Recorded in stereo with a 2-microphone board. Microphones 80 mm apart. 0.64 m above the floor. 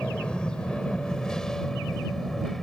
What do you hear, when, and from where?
0.0 s an aircraft: 15° left (ahead or behind); by 2.6 s 5° left (ahead or behind)